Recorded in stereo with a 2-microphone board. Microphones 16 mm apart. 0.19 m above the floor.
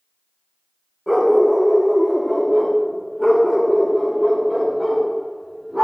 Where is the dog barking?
15° right (ahead or behind), 5 m; by 5.8 s 55° right (ahead or behind), 6.5 m.